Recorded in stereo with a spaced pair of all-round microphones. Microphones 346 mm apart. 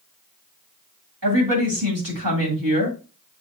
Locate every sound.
1.2 s a woman speaking: 65° right (ahead or behind), 2.5 m